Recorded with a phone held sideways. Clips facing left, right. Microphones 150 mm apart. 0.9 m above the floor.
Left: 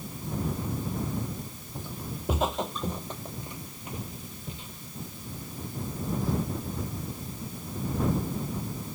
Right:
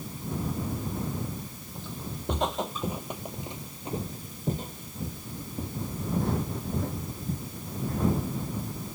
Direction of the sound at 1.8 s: 15° left (ahead or behind).